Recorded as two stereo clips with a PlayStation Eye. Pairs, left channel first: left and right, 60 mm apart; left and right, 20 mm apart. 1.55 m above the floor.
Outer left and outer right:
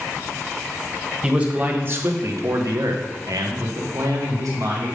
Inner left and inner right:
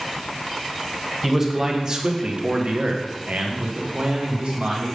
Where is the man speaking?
20° right (ahead or behind), 1.4 m; by 4.9 s 60° right (ahead or behind), 2 m.